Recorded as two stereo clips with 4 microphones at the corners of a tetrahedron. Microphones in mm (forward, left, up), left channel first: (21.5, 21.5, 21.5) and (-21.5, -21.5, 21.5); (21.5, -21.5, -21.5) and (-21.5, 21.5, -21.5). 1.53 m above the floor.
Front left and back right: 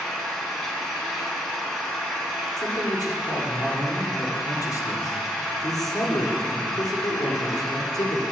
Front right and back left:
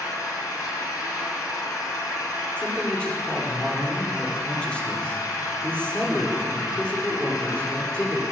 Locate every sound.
0.0 s an engine running: 40° right, 3.5 m
2.6 s a man speaking: 25° left, 5 m